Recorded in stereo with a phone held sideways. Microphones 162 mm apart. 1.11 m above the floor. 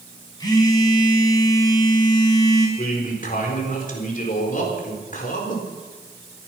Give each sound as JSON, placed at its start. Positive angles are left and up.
{"t": 0.4, "sound": "a phone buzzing", "side_deg": 25, "distance_m": 4.5}
{"t": 2.8, "sound": "a man speaking", "side_deg": 55, "distance_m": 4.0}